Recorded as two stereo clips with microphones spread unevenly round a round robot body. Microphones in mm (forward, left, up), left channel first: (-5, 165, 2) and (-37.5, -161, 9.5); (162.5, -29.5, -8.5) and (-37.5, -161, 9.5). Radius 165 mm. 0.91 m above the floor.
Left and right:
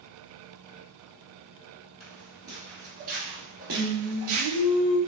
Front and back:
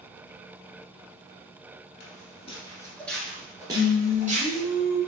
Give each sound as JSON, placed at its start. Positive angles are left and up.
{"t": 2.0, "sound": "footsteps", "azimuth_deg": -5, "distance_m": 1.1}
{"t": 3.7, "sound": "singing", "azimuth_deg": -10, "distance_m": 1.1}